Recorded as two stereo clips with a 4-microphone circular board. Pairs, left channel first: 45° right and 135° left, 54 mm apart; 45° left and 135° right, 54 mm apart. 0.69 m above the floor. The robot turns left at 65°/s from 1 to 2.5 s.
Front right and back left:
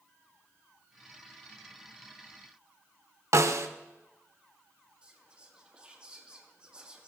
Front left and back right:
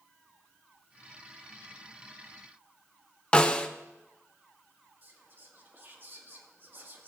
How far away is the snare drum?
About 0.6 m.